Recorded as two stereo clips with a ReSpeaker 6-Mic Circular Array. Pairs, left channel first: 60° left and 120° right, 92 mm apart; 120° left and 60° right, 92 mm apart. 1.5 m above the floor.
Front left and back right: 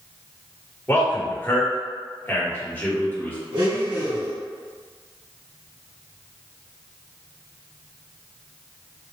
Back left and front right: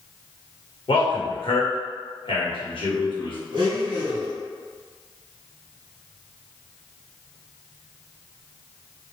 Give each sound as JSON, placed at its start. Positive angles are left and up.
{"t": 0.9, "sound": "a man speaking", "azimuth_deg": 130, "distance_m": 1.2}
{"t": 3.5, "sound": "a blender", "azimuth_deg": -95, "distance_m": 1.4}